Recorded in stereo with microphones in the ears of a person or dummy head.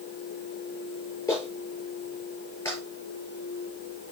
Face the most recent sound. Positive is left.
turn(degrees=10)  # may be behind; listen again after turning